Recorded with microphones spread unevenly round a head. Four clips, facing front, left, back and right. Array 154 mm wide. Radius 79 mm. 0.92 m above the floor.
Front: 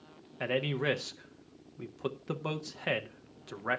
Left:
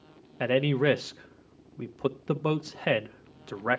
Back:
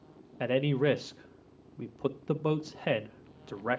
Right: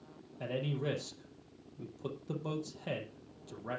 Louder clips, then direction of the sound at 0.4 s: Left 12 dB, back 4 dB; 95° left.